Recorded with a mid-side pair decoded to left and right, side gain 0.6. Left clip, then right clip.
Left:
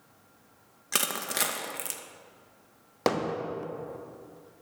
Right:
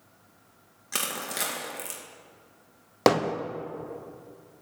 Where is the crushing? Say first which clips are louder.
Left 2 dB; 25° left, 2 m.